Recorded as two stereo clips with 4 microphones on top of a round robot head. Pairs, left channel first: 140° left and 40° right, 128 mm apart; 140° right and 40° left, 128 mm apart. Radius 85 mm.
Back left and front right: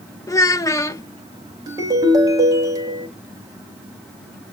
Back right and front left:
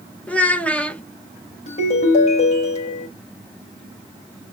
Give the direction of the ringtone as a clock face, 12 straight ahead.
3 o'clock.